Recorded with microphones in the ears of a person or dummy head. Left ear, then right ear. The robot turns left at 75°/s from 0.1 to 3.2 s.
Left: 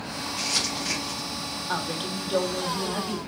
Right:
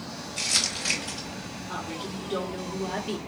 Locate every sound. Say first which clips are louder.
0.4 s crumpling: right 1 dB; 35° right (ahead or behind), 2.5 m; by 1.3 s 60° right (ahead or behind), 2.5 m
1.7 s a woman speaking: left 4 dB; 75° left, 0.8 m; by 3.2 s 35° right, 0.8 m